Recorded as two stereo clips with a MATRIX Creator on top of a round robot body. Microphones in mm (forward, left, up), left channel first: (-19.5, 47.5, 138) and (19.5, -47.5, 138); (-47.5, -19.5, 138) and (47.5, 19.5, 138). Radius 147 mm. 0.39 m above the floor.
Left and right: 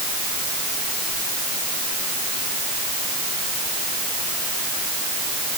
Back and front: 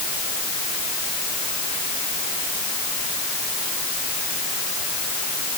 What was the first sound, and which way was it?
Only background noise.